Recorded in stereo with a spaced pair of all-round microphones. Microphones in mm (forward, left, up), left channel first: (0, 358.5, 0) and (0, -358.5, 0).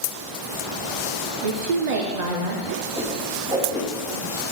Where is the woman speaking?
75° right (ahead or behind), 0.9 m.